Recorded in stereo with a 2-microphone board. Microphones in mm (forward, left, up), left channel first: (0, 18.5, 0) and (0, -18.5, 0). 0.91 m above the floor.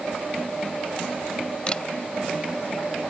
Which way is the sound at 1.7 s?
25° left (ahead or behind).